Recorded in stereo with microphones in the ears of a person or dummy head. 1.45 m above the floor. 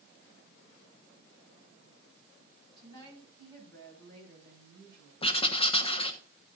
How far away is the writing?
About 1.0 m.